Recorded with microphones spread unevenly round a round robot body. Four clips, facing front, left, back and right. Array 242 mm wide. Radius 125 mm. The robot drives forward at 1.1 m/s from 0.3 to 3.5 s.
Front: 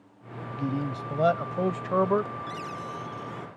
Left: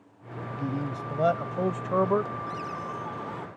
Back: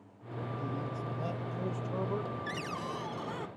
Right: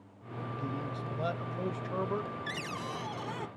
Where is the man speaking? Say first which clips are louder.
Left 7 dB, front 10 dB; 25° left; by 2.3 s 40° left.